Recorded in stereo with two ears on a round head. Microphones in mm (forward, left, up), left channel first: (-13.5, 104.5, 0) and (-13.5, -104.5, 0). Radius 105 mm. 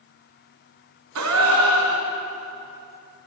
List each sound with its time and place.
1.1 s a gasp: 75° right (ahead or behind), 2.5 m